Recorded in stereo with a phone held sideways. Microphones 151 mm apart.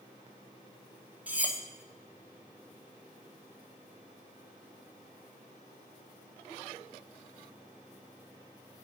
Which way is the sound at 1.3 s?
10° right (ahead or behind).